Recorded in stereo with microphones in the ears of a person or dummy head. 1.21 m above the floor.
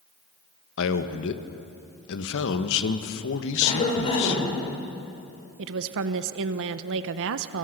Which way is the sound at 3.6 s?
30° left (ahead or behind).